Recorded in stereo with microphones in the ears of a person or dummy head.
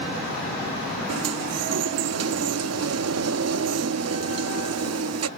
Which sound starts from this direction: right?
A sliding door, at 1.1 s.